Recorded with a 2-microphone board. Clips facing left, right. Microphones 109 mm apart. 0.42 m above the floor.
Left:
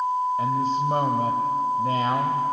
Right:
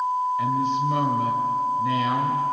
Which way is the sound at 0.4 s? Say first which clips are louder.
Even; 40° left (ahead or behind).